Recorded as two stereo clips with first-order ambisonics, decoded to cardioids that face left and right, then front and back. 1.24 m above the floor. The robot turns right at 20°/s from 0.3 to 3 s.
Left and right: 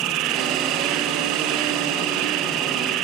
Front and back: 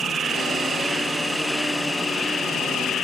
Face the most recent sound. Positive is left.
turn(degrees=-60)